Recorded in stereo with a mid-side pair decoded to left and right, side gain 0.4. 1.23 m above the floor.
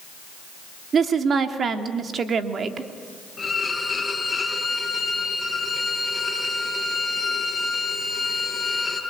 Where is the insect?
I don't hear an insect.